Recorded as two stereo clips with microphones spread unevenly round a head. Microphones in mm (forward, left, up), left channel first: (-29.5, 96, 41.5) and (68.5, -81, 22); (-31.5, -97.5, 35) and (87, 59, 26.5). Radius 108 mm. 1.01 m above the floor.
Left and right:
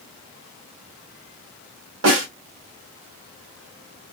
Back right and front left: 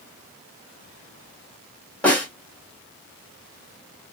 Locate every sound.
2.0 s a snare drum: 45° right, 1.4 m